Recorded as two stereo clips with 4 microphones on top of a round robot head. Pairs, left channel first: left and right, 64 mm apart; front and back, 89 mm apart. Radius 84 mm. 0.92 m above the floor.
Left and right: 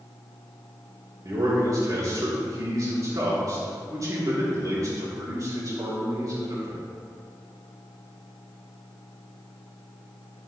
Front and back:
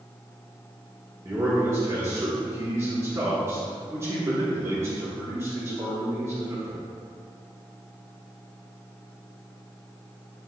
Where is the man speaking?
120° right, 3 m.